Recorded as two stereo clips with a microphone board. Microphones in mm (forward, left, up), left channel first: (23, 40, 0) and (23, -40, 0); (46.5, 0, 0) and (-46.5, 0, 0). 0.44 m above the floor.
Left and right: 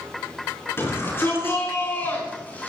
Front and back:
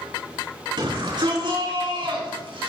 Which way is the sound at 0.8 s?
145° left.